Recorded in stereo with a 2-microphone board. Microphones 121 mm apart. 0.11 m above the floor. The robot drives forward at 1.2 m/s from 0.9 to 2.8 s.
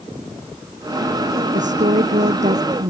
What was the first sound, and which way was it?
A woman speaking, 75° right (ahead or behind).